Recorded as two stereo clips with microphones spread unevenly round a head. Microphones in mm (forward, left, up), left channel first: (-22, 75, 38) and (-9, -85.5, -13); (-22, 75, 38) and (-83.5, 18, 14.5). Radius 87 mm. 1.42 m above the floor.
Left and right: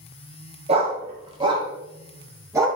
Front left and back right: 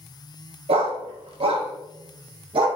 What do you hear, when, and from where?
0.7 s a dog barking: 145° right, 3.5 m; by 2.7 s 165° right, 5 m